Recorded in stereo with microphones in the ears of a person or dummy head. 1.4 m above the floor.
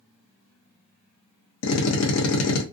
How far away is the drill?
About 0.7 m.